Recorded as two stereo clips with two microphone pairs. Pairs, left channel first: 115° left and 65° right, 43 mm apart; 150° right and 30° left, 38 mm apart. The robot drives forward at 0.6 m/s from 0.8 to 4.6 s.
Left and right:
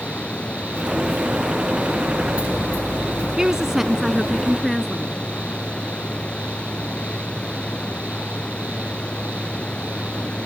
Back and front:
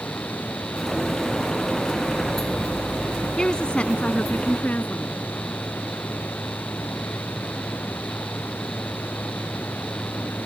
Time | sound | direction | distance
0.0 | running water | 175° left | ?
3.4 | a woman speaking | 115° right | ?